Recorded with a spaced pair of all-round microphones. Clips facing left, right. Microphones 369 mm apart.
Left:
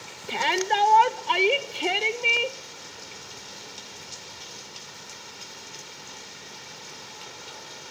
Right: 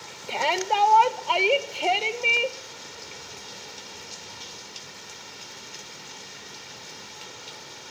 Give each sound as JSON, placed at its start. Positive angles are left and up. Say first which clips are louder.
{"t": 0.3, "sound": "a shout", "louder": "left 1 dB", "side_deg": 30, "distance_m": 0.9}